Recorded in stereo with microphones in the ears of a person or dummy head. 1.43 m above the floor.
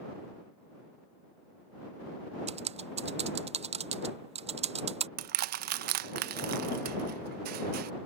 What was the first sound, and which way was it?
Typing on a keyboard, 30° right (ahead or behind).